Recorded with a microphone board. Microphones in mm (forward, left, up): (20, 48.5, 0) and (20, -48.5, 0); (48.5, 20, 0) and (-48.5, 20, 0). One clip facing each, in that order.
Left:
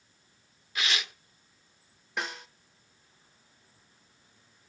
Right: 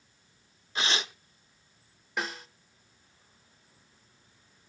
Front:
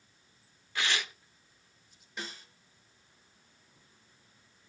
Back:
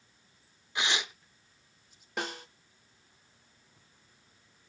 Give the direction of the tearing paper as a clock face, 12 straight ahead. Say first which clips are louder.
Right 2 dB, back 1 dB; 4 o'clock.